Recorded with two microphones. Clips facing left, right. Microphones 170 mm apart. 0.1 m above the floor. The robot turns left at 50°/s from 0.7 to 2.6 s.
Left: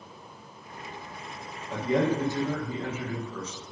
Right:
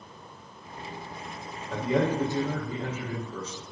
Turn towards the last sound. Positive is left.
turn(degrees=-35)